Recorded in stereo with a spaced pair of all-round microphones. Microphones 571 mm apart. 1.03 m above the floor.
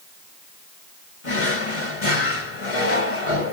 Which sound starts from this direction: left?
A drawer, at 1.2 s.